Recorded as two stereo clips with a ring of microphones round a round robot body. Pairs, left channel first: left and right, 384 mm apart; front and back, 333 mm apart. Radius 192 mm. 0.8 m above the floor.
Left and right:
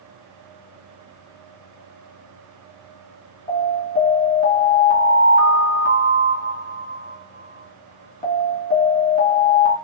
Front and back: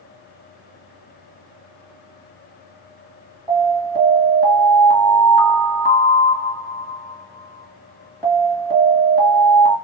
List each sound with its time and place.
3.5 s an alarm: 55° left, 1.3 m